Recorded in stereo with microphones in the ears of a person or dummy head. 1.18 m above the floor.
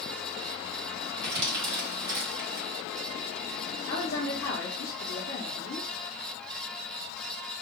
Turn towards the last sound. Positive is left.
turn(degrees=35)  # may be behind; listen again after turning